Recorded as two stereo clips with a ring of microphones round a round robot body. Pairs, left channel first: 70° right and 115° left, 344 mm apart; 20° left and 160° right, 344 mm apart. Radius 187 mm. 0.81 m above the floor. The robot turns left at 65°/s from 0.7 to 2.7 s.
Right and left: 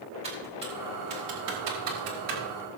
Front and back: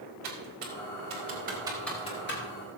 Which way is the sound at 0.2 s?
175° right.